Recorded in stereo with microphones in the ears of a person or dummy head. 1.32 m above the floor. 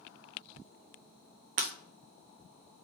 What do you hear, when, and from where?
1.6 s breaking glass: 40° right (ahead or behind), 0.5 m